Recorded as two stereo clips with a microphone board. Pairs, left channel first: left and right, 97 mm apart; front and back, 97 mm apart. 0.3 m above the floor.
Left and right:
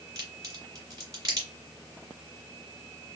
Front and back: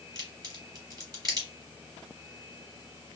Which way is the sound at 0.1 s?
140° right.